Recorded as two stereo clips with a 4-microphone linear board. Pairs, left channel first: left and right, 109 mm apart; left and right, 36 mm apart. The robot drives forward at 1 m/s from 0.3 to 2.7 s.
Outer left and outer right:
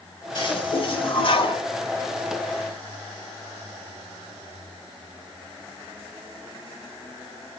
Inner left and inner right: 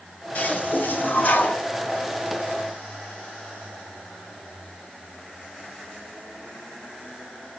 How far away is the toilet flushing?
About 2 m.